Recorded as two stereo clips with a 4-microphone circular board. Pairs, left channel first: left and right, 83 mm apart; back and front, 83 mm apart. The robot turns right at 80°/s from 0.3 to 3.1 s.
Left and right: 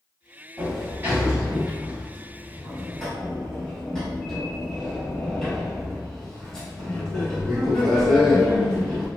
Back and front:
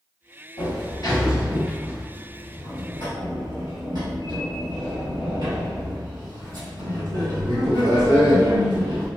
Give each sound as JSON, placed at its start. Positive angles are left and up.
{"t": 0.6, "sound": "a sliding door", "azimuth_deg": 170, "distance_m": 1.8}